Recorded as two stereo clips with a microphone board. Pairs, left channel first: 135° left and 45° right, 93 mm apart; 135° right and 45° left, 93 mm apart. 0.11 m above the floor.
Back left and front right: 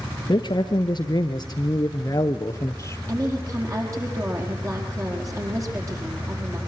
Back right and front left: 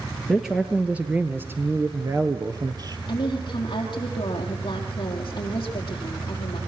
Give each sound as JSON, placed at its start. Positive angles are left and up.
{"t": 0.3, "sound": "a man speaking", "azimuth_deg": 135, "distance_m": 1.6}
{"t": 3.1, "sound": "a woman speaking", "azimuth_deg": -100, "distance_m": 4.5}